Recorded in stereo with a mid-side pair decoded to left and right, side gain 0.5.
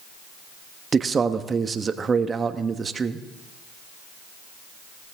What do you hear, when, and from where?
0.9 s a man speaking: 35° right, 1.3 m